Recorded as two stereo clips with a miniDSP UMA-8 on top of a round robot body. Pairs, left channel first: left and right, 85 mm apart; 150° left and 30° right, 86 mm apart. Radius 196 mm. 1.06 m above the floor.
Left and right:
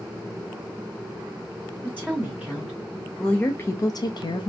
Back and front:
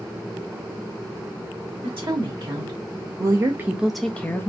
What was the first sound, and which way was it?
A woman speaking, 20° right.